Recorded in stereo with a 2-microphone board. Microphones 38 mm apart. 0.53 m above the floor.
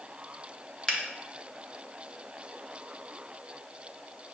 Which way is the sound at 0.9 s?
20° left (ahead or behind).